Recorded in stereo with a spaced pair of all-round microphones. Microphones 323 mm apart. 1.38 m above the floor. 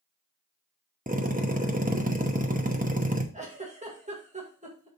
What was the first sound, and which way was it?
A drill, 25° right (ahead or behind).